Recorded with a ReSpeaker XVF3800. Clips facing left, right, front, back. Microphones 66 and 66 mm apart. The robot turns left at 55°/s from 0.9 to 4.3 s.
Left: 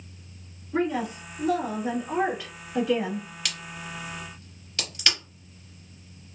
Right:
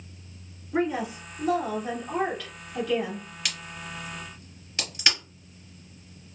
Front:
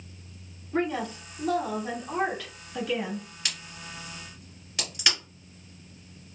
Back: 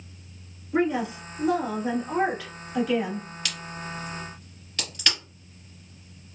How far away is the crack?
About 1.8 m.